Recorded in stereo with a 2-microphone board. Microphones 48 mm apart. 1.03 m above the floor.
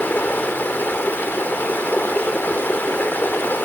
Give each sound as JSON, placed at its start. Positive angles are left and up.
{"t": 0.0, "sound": "running water", "side_deg": 45, "distance_m": 0.9}